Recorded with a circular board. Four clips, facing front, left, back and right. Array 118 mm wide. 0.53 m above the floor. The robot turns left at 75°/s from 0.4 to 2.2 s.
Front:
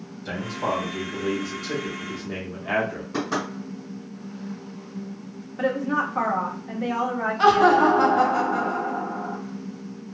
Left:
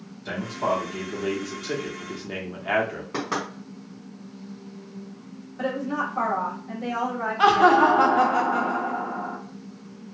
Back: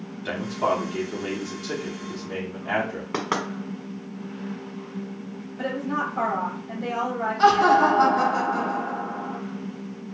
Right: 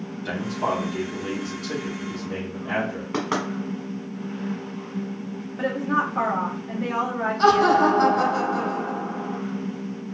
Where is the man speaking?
155° right, 0.8 m; by 3.0 s 70° left, 0.8 m.